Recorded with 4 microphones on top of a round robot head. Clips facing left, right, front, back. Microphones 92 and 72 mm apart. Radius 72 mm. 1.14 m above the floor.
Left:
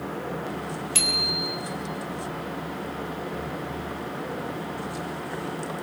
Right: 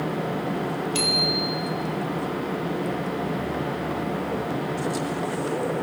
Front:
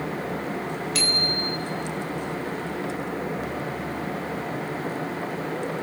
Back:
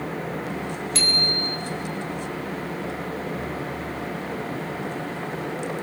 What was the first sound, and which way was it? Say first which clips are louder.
A bicycle bell: right 5 dB, even; 130° left.